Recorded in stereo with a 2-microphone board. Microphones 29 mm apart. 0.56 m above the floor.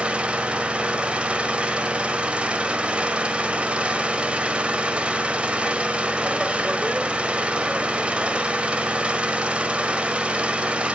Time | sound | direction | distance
0.0 | an engine running | 40° right (ahead or behind) | 1.3 m